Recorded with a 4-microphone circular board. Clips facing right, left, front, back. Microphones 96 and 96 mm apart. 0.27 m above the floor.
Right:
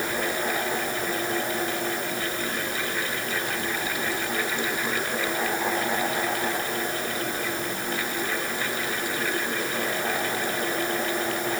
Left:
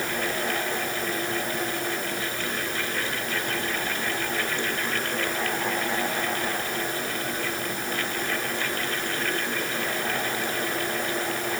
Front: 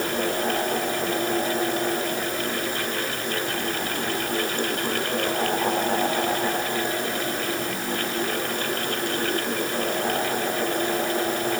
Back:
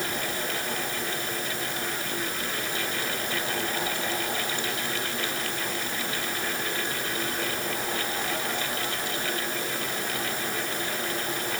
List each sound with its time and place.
Only background noise.